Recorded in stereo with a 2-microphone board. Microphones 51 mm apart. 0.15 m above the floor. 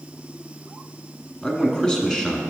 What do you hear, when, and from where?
1.4 s a man speaking: 15° left (ahead or behind), 1.1 m